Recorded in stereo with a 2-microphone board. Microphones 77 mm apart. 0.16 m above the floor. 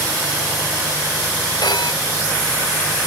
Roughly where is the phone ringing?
Left.